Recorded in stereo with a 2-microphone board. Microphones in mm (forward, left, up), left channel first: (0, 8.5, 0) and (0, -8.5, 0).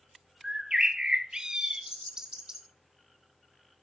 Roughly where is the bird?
Right.